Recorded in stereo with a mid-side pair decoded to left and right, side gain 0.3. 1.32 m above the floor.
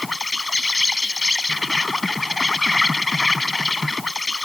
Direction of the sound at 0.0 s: 30° left.